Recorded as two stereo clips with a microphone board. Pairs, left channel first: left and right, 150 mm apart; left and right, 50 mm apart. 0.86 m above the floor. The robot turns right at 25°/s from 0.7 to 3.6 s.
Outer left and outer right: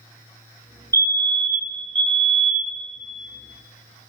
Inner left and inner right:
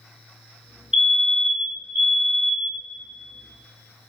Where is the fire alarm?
145° right, 1.6 m; by 2.8 s 100° right, 1.6 m.